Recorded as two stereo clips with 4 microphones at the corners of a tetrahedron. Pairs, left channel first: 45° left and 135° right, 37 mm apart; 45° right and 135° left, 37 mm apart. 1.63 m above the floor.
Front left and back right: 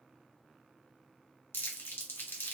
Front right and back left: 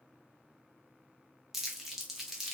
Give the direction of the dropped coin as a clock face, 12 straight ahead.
I don't hear a dropped coin.